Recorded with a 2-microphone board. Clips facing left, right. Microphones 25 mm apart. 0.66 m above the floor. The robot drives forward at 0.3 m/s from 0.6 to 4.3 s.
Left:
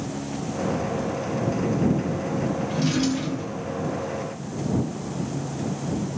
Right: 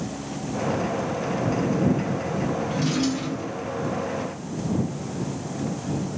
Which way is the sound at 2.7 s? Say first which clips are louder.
Left 2 dB; 15° left (ahead or behind).